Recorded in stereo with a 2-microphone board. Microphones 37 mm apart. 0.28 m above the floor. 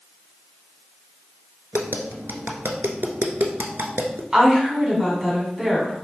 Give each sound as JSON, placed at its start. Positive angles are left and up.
{"t": 1.7, "sound": "tapping", "side_deg": -80, "distance_m": 0.8}
{"t": 4.3, "sound": "a woman speaking", "side_deg": -15, "distance_m": 1.8}